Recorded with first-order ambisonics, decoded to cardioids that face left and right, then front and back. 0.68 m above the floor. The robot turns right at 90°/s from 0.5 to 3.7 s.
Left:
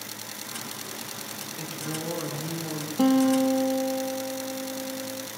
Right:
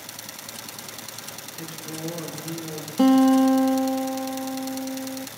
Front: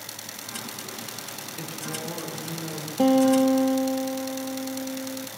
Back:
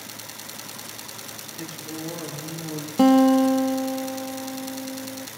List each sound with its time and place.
1.6 s a woman speaking: 25° left, 8 m; by 2.9 s 145° left, 8 m
3.0 s a guitar: 170° right, 1.0 m; by 5.3 s 105° right, 1.0 m